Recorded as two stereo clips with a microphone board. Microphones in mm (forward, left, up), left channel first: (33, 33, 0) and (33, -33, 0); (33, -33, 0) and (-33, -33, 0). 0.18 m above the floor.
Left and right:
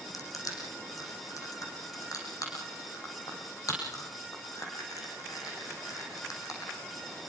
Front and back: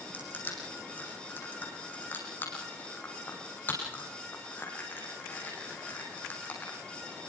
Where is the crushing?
60° left, 7 m.